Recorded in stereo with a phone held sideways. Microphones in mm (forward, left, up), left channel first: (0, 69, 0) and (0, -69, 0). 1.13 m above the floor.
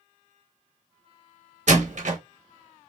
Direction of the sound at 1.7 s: 60° right (ahead or behind).